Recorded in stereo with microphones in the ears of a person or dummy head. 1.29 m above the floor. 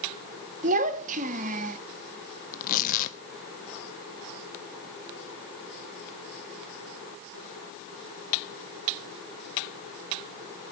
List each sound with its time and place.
0.6 s a child speaking: 45° right (ahead or behind), 2 m
2.5 s tearing paper: 40° left (ahead or behind), 1.3 m